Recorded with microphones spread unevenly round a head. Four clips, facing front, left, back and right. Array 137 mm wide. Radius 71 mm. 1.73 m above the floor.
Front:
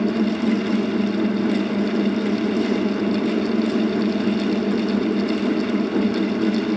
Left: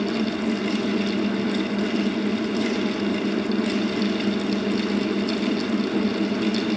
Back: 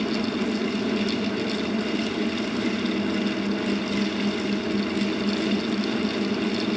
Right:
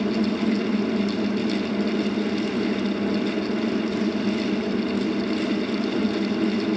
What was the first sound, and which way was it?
Only background noise.